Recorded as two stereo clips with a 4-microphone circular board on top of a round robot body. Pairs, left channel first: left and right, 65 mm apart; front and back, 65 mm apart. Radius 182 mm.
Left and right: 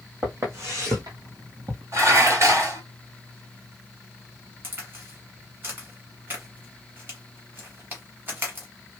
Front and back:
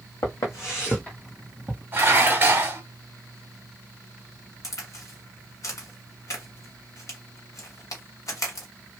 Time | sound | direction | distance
0.2 | footsteps | 30° right | 1.5 m
1.9 | dishes clattering | 125° right | 1.7 m
4.6 | a crack | 30° right | 1.4 m